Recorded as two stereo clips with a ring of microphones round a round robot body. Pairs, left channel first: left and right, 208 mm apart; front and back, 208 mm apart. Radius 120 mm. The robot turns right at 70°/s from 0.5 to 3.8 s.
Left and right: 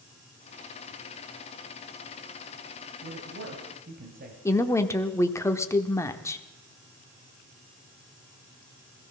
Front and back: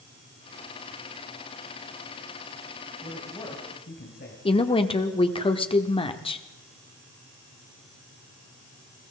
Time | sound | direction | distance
3.0 | a man speaking | 100° right | 2.5 m
4.5 | a woman speaking | 30° left | 1.1 m